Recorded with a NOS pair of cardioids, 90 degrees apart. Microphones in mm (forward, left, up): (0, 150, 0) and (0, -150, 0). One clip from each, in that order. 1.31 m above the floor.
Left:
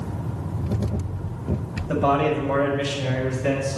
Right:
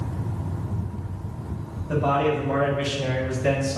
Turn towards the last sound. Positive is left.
turn(degrees=-15)